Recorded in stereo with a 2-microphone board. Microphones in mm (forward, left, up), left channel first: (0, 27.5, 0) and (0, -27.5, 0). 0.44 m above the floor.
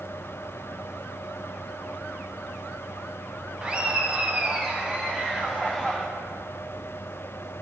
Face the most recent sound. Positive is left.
turn(degrees=-5)  # may be behind; listen again after turning